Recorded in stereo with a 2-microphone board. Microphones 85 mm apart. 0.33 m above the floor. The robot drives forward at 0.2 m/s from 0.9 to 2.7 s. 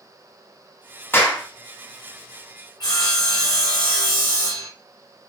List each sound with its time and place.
1.1 s a clap: 25° left (ahead or behind), 0.9 m
2.8 s sawing: 65° left (ahead or behind), 2.5 m